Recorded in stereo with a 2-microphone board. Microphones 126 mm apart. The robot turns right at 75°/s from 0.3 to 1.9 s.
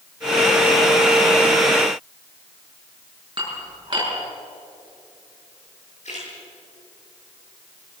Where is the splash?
60° left (ahead or behind), 10 m.